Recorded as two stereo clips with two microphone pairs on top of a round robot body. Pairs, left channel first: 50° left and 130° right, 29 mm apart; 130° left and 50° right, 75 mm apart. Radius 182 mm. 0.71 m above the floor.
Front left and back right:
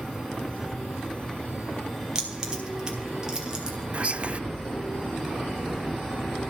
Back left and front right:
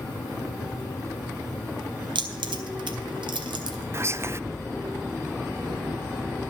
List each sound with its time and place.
2.1 s keys jangling: 65° right, 1.2 m
3.9 s whispering: 95° right, 0.5 m